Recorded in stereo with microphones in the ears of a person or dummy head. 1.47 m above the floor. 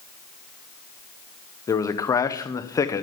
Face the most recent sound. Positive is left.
turn(degrees=20)  # may be behind; listen again after turning